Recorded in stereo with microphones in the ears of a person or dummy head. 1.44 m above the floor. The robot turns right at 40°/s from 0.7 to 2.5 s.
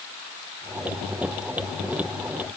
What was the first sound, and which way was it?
Only background noise.